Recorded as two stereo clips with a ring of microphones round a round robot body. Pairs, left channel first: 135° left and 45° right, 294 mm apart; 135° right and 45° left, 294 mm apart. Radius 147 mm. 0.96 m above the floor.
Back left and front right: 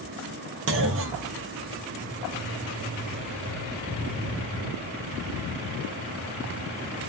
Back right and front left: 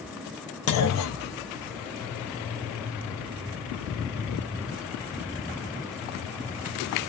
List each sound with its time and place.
0.7 s a clunk: 95° right, 0.5 m